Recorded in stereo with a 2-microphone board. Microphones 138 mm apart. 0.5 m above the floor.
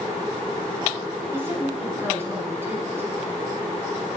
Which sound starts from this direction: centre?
A woman speaking, at 1.3 s.